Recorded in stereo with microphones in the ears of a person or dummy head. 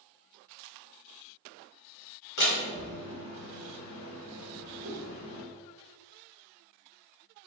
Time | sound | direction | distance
2.4 | a door slam | 55° left (ahead or behind) | 1.6 m
4.8 | a whoosh | 70° right (ahead or behind) | 1.0 m